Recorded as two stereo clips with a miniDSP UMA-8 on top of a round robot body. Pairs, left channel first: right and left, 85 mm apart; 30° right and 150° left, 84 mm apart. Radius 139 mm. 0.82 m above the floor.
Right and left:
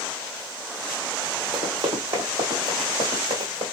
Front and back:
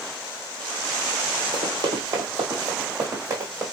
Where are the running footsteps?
125° left, 1.8 m; by 3.6 s 85° left, 2 m.